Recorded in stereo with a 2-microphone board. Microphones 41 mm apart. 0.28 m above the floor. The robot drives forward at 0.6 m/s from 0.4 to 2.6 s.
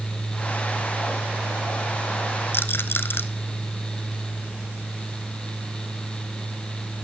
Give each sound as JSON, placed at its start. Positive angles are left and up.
{"t": 2.5, "sound": "a rattle", "side_deg": 55, "distance_m": 0.6}